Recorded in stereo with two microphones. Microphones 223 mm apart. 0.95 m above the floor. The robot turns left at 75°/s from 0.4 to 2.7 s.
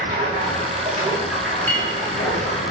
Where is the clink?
10° left (ahead or behind), 2 m; by 1.9 s 10° right (ahead or behind), 2 m.